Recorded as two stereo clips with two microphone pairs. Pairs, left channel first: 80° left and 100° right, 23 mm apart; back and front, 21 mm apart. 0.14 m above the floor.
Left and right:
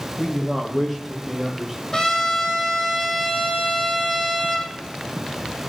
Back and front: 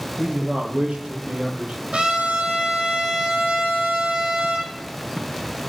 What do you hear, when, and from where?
0.2 s a man speaking: 10° left, 3 m; by 1.8 s 15° right, 4 m
1.9 s a trumpet: 20° left, 3.5 m